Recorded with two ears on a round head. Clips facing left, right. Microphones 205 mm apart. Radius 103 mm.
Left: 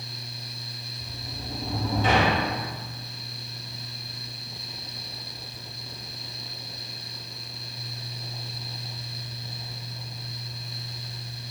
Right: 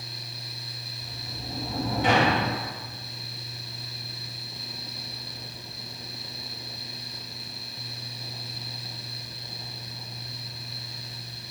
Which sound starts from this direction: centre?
A sliding door, at 1.0 s.